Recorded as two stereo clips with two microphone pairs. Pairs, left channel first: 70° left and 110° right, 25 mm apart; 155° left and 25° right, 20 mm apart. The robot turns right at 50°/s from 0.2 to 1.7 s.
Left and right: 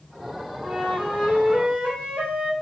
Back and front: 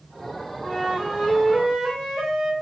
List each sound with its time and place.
0.6 s a flute: 165° right, 2.5 m; by 2.5 s 110° right, 2.5 m